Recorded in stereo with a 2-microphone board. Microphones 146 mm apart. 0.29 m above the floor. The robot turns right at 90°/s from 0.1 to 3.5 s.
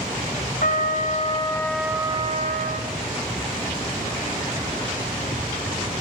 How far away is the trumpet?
About 1.2 m.